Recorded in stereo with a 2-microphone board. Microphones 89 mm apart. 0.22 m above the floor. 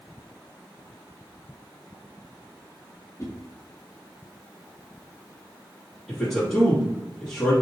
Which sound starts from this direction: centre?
A man speaking, at 6.1 s.